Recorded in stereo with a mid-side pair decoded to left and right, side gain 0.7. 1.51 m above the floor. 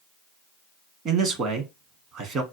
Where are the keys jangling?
I don't hear keys jangling.